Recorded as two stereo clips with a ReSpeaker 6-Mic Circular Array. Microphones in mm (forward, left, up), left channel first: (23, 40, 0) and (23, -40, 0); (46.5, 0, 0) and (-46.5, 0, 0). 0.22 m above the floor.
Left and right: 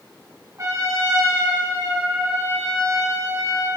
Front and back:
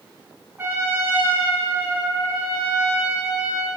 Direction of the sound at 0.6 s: 125° right.